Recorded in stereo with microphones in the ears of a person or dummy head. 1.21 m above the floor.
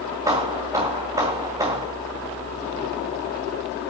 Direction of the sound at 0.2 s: 15° right (ahead or behind).